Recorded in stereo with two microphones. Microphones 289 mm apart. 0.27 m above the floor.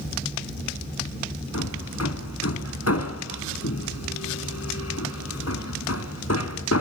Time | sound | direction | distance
1.5 | hammering | 60° left (ahead or behind) | 2 m